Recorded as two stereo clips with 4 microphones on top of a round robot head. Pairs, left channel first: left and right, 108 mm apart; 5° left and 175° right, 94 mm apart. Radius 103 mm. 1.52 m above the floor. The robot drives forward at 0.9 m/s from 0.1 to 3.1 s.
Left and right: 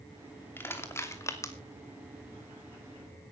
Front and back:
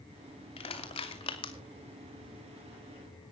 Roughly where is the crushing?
Ahead.